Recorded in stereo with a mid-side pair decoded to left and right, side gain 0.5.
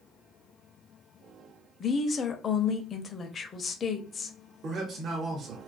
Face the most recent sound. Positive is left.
turn(degrees=-50)